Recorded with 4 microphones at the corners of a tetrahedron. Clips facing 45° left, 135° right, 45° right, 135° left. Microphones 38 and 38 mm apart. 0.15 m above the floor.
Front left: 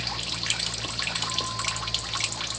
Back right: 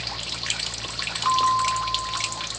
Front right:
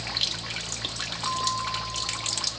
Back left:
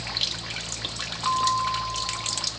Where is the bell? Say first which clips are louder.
Back right 10 dB, back left 6 dB; 160° right.